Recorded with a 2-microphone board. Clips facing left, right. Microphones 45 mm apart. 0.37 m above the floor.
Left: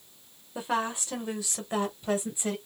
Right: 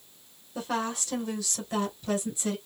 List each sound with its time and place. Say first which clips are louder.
0.6 s a woman speaking: left 1 dB; 20° left (ahead or behind), 1.6 m; by 2.5 s 30° left (ahead or behind), 2.5 m